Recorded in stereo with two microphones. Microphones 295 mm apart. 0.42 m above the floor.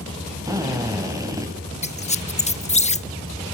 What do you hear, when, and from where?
0.5 s a drill: 10° right (ahead or behind), 3.5 m
1.8 s a squeak: 25° left (ahead or behind), 0.7 m